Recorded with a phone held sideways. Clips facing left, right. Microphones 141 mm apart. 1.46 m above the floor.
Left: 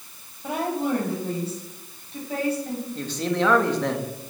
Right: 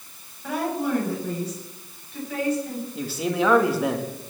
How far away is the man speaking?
About 2.5 m.